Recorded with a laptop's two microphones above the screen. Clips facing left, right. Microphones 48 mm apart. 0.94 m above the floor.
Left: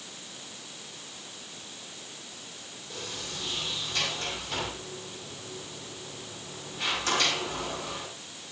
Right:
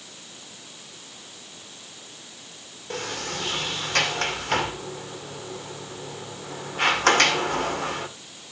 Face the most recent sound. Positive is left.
turn(degrees=-65)  # may be behind; listen again after turning